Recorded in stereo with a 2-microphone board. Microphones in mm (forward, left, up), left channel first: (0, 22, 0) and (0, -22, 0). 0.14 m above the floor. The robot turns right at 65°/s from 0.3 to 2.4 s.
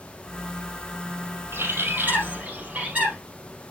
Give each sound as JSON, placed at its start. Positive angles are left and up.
{"t": 1.5, "sound": "a bird", "azimuth_deg": -90, "distance_m": 4.0}